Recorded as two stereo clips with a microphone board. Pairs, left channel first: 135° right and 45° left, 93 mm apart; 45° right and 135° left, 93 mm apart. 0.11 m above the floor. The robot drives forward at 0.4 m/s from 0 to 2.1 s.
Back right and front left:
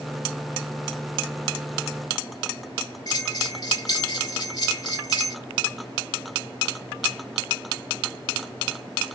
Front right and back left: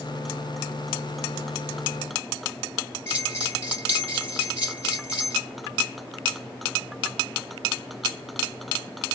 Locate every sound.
3.1 s a bell: 100° right, 2 m